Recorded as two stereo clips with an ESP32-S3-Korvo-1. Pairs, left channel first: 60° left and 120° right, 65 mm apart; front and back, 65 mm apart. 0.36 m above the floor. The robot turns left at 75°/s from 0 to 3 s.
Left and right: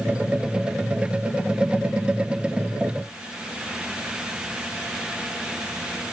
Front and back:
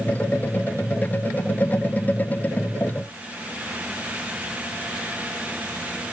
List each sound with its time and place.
Only background noise.